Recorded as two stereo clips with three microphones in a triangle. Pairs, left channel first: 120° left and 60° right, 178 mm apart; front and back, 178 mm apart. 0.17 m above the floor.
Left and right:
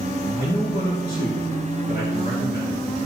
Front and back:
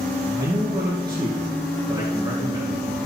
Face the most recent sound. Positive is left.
turn(degrees=115)